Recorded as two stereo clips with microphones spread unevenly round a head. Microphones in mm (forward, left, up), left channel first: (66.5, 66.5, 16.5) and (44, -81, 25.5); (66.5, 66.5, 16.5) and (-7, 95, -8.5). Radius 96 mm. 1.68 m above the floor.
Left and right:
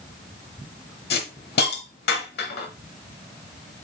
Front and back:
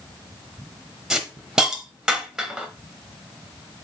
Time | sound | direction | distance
1.1 | a hiss | 75° left | 1.1 m